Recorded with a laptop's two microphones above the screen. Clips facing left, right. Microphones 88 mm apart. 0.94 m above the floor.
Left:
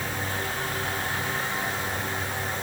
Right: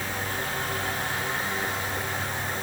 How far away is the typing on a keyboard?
I don't hear typing on a keyboard.